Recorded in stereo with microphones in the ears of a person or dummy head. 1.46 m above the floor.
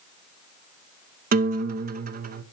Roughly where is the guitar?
Right.